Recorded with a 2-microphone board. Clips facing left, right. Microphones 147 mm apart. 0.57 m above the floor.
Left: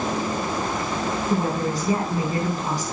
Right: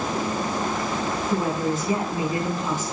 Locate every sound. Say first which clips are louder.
1.3 s a woman speaking: even; 40° left (ahead or behind), 5 m